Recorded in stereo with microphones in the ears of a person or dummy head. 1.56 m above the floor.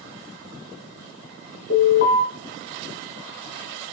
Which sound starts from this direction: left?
An alarm, at 1.7 s.